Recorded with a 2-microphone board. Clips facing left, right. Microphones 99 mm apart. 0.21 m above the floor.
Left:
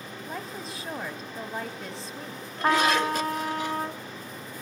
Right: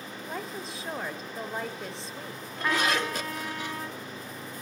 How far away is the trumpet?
About 0.5 m.